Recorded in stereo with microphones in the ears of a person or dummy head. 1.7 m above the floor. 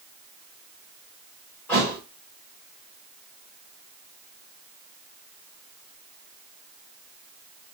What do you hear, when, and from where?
1.7 s a thud: 10° left (ahead or behind), 1.9 m